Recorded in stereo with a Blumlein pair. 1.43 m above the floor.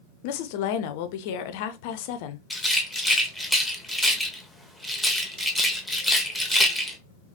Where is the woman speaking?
50° left, 0.5 m.